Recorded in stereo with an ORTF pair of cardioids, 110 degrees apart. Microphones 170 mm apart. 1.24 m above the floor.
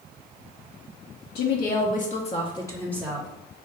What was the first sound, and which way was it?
A woman speaking, 70° left.